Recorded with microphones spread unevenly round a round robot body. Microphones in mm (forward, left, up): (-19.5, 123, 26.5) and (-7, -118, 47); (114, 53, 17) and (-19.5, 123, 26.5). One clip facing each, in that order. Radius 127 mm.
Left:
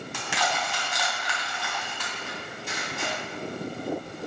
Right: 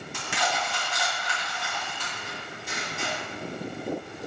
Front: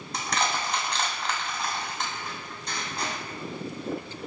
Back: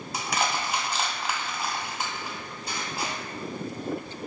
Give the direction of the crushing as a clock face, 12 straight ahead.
10 o'clock.